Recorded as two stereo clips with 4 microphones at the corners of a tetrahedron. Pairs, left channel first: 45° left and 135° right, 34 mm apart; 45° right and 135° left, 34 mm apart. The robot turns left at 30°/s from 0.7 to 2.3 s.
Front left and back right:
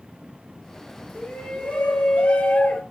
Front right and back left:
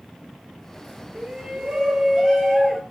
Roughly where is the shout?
Left.